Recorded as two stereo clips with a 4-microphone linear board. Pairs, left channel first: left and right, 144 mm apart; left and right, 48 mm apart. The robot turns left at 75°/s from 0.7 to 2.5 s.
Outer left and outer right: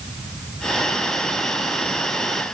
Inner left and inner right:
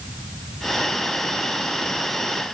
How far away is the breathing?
No breathing in this recording.